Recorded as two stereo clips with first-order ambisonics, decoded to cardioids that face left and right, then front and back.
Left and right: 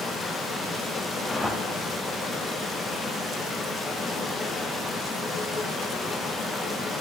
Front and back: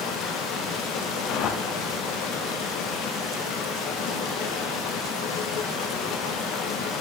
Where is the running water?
15° left, 1.4 m.